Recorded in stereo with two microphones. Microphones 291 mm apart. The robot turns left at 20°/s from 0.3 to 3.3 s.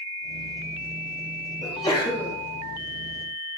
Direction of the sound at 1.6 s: 20° left (ahead or behind).